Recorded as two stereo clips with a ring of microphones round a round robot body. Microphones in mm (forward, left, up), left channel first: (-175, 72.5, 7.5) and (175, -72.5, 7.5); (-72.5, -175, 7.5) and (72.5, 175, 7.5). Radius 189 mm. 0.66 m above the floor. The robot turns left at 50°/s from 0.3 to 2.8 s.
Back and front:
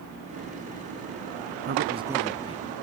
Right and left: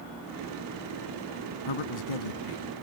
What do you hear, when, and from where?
1.7 s a man speaking: 85° right; by 2.6 s 130° right